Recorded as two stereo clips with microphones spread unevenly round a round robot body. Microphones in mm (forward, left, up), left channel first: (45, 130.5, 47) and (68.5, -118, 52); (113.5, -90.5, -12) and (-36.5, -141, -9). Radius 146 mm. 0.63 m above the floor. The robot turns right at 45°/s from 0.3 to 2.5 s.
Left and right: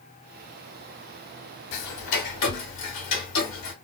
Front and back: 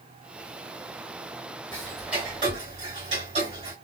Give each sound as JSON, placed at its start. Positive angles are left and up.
{"t": 1.7, "sound": "ticking", "azimuth_deg": 95, "distance_m": 0.7}